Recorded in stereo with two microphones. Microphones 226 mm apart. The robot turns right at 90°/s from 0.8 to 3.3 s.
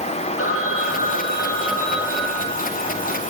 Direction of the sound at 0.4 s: 80° left.